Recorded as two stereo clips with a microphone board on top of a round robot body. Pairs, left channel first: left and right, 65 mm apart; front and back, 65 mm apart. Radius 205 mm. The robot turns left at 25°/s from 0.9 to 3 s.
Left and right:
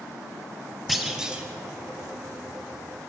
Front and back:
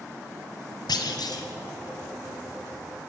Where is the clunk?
Straight ahead, 1.0 m; by 1.4 s 15° right, 1.0 m.